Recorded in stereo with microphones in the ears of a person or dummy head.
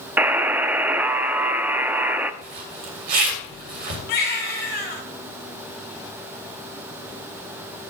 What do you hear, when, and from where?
0.2 s a buzzer: 15° right (ahead or behind), 0.5 m
2.4 s a zipper: 45° right (ahead or behind), 2 m
4.1 s a baby crying: 60° left (ahead or behind), 1.5 m